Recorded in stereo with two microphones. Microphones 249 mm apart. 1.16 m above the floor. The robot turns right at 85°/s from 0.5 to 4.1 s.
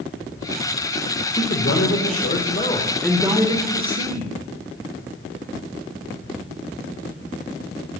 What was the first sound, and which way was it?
A man speaking, 35° left.